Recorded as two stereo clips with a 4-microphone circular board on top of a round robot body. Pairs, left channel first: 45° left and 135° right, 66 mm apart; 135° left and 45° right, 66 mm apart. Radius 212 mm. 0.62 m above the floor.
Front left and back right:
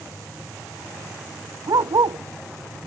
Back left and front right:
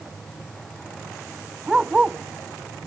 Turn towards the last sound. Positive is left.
turn(degrees=-125)